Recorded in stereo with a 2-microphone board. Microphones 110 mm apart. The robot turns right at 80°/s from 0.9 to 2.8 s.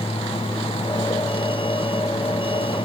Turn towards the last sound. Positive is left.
No sound to turn to.